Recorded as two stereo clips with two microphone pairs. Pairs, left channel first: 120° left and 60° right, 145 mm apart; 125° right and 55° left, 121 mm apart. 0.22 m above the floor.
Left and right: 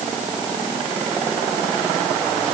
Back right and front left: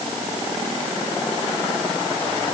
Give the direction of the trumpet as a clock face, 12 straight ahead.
No trumpet in this recording.